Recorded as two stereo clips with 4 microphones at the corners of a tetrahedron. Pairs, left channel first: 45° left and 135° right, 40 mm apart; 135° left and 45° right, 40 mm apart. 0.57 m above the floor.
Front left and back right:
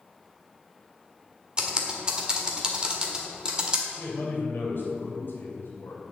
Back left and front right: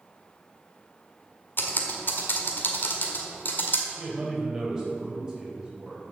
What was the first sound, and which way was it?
Typing on a keyboard, 160° left.